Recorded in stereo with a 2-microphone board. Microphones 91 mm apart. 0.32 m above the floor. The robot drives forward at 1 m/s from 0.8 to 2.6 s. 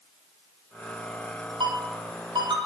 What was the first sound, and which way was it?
A ringtone, 65° right (ahead or behind).